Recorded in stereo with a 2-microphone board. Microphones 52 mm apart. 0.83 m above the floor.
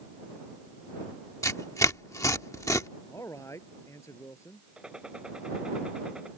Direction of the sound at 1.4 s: 75° left (ahead or behind).